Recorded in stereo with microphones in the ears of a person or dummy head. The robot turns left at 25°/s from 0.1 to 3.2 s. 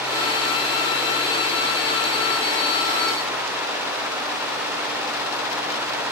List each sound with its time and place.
Only background noise.